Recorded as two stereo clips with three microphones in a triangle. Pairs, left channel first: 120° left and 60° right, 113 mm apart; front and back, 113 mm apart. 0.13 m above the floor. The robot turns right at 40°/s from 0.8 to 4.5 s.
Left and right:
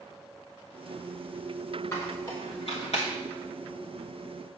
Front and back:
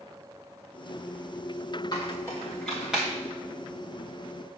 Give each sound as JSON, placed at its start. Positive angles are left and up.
{"t": 1.9, "sound": "a squeak", "azimuth_deg": 55, "distance_m": 2.0}